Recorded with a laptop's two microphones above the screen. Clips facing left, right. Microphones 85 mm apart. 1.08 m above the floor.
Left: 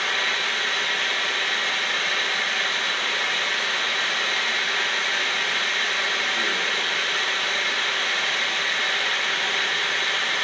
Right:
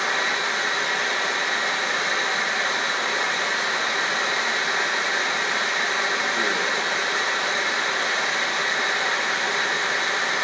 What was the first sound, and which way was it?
Running water, 20° right (ahead or behind).